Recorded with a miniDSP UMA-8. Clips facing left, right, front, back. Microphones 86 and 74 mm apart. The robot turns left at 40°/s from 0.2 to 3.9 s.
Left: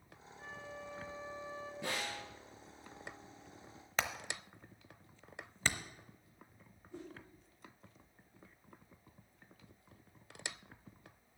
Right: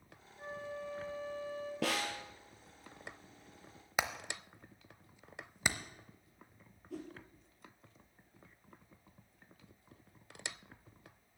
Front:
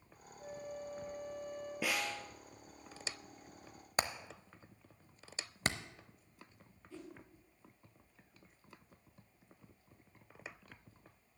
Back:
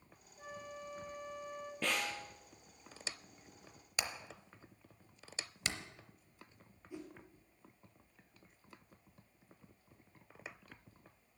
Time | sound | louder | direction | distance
0.4 | a flute | right 5 dB, front 3 dB | 160° right | 1.3 m
1.8 | a snare drum | right 5 dB, even | 80° right | 1.5 m
4.0 | hammering | right 2 dB, front 5 dB | 20° right | 0.7 m
6.9 | a whoosh | right 4 dB, back 2 dB | 100° right | 2 m